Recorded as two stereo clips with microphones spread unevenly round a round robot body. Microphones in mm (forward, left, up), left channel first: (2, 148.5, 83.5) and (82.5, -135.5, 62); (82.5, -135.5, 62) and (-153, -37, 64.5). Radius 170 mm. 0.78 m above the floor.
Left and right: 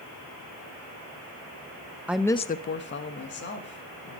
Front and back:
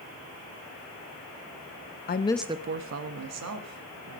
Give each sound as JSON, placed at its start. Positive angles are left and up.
{"t": 2.1, "sound": "a woman speaking", "azimuth_deg": 5, "distance_m": 0.6}